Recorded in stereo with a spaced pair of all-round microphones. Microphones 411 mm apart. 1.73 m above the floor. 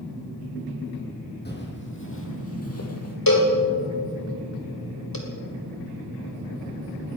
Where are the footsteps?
25° left (ahead or behind), 3 m; by 3.2 s 40° left (ahead or behind), 2 m.